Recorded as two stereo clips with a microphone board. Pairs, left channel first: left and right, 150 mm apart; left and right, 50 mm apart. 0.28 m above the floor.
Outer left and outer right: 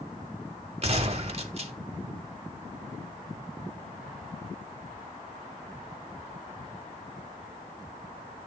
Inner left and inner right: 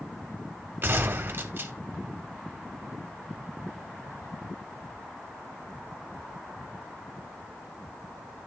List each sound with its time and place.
0.8 s a gunshot: 45° right (ahead or behind), 0.6 m